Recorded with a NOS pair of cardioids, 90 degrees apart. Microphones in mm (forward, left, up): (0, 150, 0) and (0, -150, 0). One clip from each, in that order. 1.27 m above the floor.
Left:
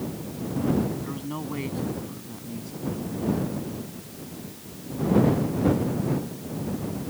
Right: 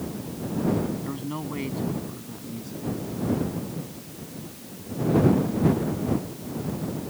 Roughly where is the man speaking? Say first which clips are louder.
Right 1 dB; ahead.